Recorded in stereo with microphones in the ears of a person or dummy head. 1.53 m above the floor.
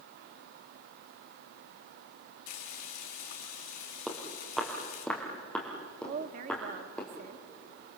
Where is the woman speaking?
50° right (ahead or behind), 1.4 m.